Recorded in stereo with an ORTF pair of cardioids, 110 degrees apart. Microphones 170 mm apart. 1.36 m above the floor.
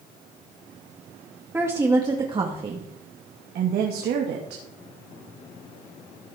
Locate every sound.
1.5 s a woman speaking: 15° right, 2.5 m; by 4.6 s 75° right, 2.5 m